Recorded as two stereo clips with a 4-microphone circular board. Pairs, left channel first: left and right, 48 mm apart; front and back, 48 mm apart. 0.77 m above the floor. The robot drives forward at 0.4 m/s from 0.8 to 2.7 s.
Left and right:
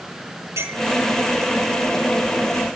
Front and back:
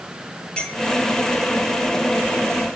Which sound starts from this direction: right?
A clink, at 0.6 s.